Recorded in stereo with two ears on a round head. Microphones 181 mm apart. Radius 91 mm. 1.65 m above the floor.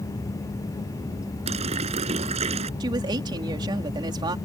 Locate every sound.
1.5 s a running tap: 30° right (ahead or behind)
2.8 s a woman speaking: 20° right (ahead or behind)